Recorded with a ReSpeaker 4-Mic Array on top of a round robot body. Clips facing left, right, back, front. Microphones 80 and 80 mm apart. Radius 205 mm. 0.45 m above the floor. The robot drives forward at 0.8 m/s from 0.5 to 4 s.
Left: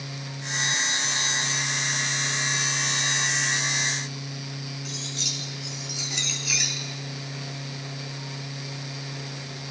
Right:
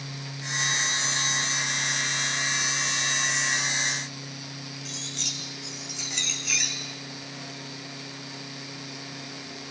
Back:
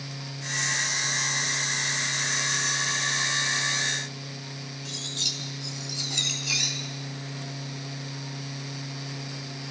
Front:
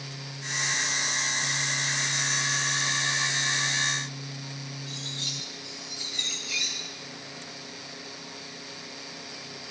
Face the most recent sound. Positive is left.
turn(degrees=175)